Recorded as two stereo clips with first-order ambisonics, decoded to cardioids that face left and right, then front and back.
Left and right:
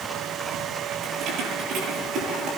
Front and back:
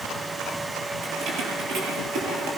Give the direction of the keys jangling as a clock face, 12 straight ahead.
5 o'clock.